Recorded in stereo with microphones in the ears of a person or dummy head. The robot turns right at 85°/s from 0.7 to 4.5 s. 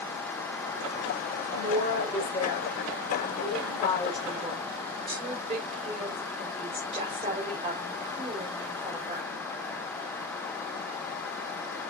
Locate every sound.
1.5 s a woman speaking: 40° right, 5 m; by 9.3 s 150° right, 5 m